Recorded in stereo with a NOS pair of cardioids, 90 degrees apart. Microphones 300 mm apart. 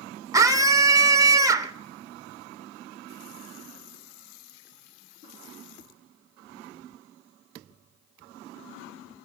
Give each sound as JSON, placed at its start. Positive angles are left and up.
{"t": 0.3, "sound": "a scream", "azimuth_deg": -10, "distance_m": 0.6}